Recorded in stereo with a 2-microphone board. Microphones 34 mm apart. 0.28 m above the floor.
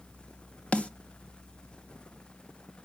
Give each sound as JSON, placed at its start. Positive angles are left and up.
{"t": 0.7, "sound": "a snare drum", "side_deg": 40, "distance_m": 0.9}